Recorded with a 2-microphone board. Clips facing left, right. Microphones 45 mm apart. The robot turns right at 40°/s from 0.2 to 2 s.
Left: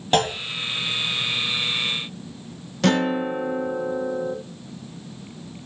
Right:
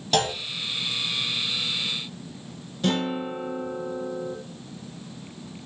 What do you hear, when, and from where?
0.1 s a clunk: 30° left (ahead or behind), 1.1 m; by 0.3 s 35° left (ahead or behind), 1.1 m
2.8 s a guitar: 75° left (ahead or behind), 0.7 m